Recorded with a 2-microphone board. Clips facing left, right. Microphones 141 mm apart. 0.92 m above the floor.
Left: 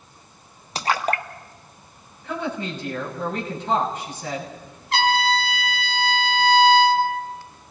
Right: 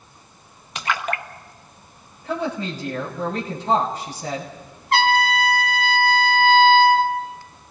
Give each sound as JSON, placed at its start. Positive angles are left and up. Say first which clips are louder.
{"t": 0.8, "sound": "a splash", "louder": "left 3 dB", "side_deg": 35, "distance_m": 1.0}
{"t": 2.2, "sound": "a woman speaking", "louder": "right 2 dB", "side_deg": -35, "distance_m": 7.0}
{"t": 4.9, "sound": "a trumpet", "louder": "right 2 dB", "side_deg": -50, "distance_m": 3.5}